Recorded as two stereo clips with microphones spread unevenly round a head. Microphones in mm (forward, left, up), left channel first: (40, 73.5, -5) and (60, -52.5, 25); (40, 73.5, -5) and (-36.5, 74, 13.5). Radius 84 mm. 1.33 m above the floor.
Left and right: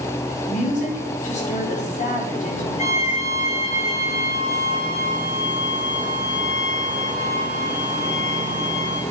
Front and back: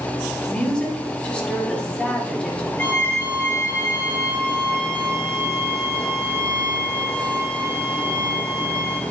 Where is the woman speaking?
75° left, 4.5 m.